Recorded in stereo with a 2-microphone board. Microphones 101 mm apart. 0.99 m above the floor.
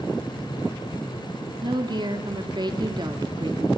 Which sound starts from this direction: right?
A woman speaking, at 1.6 s.